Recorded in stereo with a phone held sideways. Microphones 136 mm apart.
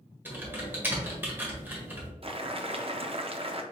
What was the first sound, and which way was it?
Typing on a keyboard, 15° right (ahead or behind).